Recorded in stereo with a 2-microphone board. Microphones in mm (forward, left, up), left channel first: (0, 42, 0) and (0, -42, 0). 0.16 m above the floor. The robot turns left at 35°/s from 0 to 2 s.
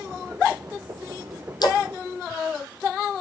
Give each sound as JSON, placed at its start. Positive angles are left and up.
{"t": 1.6, "sound": "a splash", "side_deg": 55, "distance_m": 2.5}